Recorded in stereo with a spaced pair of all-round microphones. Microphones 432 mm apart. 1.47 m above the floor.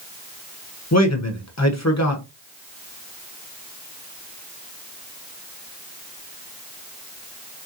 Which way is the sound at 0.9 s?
35° left (ahead or behind).